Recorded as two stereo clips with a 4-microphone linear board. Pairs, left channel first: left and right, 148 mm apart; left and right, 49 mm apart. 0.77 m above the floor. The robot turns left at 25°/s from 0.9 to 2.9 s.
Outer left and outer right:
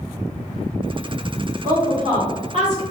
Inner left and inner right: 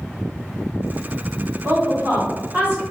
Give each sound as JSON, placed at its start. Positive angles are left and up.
{"t": 1.6, "sound": "a woman speaking", "side_deg": -60, "distance_m": 1.5}